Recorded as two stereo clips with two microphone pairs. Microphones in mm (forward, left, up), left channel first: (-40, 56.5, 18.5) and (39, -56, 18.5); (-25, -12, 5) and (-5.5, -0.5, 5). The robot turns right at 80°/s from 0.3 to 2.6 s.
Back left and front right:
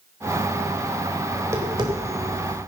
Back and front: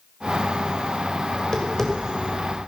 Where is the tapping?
130° right, 2 m; by 2.7 s 30° right, 2 m.